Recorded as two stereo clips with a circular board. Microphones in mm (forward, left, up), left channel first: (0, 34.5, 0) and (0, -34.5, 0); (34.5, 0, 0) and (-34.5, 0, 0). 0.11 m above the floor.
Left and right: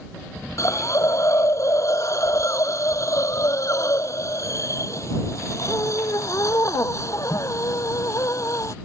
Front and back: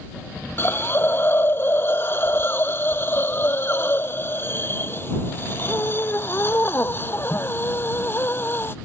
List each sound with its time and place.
0.6 s a hiss: 55° left